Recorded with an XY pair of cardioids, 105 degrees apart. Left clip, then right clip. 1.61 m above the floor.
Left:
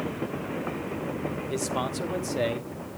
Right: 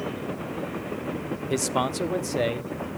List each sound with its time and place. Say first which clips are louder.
1.5 s a man speaking: right 6 dB; 45° right, 0.7 m; by 2.7 s 15° right, 1.3 m